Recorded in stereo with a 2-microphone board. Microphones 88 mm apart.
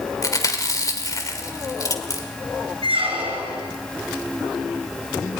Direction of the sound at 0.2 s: 40° left (ahead or behind).